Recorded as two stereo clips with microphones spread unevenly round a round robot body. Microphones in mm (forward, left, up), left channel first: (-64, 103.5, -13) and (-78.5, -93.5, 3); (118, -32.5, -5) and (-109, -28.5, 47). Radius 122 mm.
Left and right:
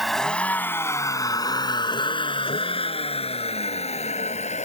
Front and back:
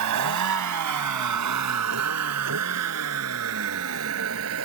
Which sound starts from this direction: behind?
A vehicle, at 0.0 s.